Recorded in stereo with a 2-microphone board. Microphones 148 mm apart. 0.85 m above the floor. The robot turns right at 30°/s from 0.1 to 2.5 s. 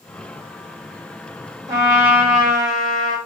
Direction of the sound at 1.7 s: 30° right (ahead or behind).